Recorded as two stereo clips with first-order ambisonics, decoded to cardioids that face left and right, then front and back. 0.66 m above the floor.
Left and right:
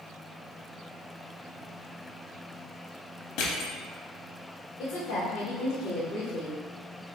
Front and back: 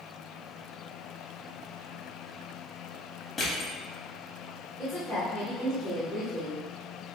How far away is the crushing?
About 0.7 m.